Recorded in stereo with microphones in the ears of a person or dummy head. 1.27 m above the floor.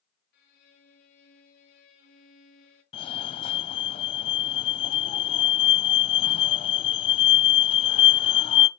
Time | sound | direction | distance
0.3 | a violin | 60° left (ahead or behind) | 4 m
2.9 | a fire alarm | 30° left (ahead or behind) | 0.9 m